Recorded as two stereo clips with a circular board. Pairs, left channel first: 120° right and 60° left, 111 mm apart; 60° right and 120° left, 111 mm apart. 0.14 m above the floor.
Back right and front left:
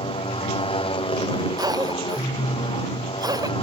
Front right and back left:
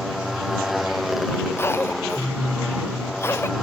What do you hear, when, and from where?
0.0 s a motorcycle: 150° right
1.6 s a cough: 5° left